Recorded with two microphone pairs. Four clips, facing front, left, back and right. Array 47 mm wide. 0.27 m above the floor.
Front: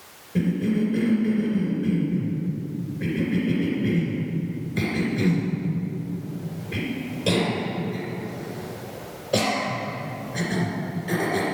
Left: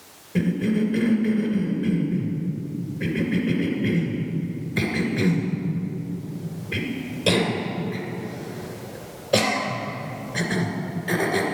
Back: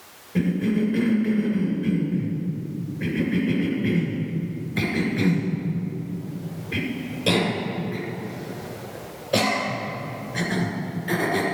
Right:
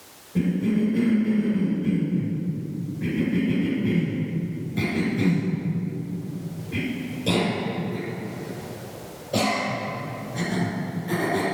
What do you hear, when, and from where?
0.3 s a cough: 120° left, 2.5 m